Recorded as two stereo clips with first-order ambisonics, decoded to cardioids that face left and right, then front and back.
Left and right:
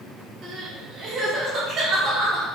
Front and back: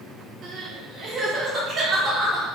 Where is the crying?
140° right, 0.6 m.